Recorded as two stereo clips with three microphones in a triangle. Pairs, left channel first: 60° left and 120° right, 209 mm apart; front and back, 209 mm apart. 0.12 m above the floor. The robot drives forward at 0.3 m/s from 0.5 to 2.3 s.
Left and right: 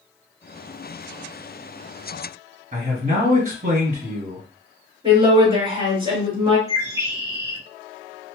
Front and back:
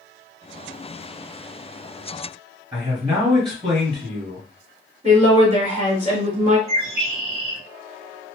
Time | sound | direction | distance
2.7 | a man speaking | 130° right | 1.9 m
5.0 | a woman speaking | 165° right | 1.7 m
6.7 | a bird | 175° right | 1.5 m